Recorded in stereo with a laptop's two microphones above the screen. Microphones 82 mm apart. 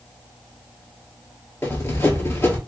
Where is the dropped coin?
I don't hear a dropped coin.